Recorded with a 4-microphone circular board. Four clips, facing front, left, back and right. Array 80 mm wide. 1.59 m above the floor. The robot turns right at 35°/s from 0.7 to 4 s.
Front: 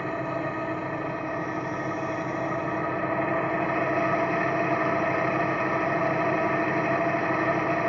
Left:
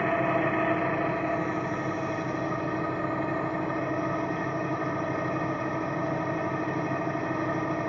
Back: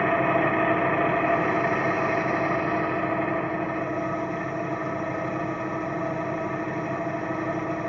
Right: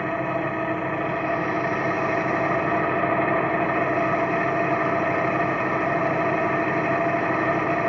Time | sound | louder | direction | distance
0.0 | an engine running | even, back 7 dB | straight behind | 0.8 m